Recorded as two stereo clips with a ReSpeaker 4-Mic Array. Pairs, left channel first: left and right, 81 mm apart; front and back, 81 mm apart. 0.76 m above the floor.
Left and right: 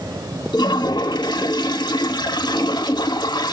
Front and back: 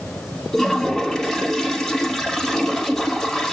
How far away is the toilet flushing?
About 2.5 m.